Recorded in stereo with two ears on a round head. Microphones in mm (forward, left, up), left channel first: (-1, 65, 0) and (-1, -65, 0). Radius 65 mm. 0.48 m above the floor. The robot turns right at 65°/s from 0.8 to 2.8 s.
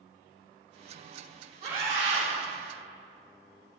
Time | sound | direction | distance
1.6 | a scream | 135° right | 2 m